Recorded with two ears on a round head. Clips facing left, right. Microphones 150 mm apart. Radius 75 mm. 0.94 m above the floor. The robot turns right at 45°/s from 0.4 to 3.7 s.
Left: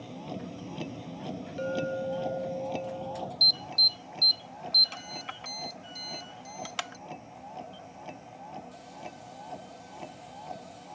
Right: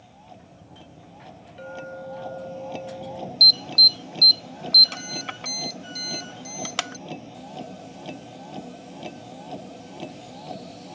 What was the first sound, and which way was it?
A vehicle, 75° left.